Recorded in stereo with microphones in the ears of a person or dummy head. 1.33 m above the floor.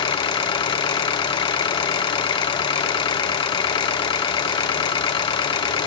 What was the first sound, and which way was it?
An engine running, 20° left (ahead or behind).